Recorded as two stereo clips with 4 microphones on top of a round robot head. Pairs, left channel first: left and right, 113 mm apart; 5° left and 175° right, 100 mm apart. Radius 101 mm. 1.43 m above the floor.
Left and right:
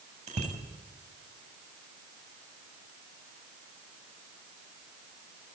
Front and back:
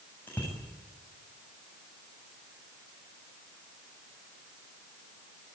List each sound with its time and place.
0.3 s a bicycle bell: 75° right, 7.5 m